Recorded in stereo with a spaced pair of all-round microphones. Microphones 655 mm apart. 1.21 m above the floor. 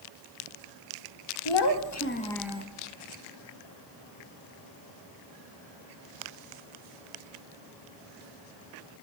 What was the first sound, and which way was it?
A child speaking, 45° left (ahead or behind).